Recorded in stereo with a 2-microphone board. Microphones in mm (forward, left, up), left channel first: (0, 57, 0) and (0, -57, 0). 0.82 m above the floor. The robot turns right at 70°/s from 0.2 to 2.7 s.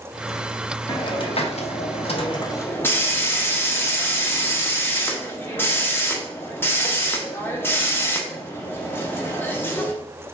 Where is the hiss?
35° left, 0.6 m; by 9.9 s 160° left, 0.6 m.